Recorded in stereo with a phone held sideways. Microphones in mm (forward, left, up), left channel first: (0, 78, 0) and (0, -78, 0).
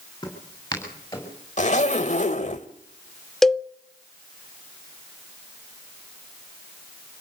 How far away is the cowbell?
About 0.7 m.